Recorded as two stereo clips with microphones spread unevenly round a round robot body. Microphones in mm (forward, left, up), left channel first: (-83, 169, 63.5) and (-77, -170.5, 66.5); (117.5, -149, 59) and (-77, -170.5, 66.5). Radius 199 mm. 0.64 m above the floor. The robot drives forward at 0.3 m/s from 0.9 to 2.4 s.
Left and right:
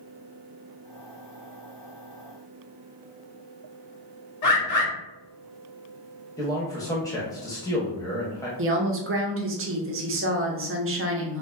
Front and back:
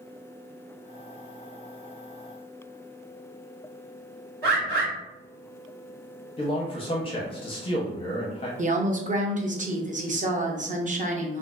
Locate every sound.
4.4 s a bird: 130° left, 1.2 m
6.4 s a man speaking: 20° left, 0.6 m
8.6 s a woman speaking: 130° right, 0.7 m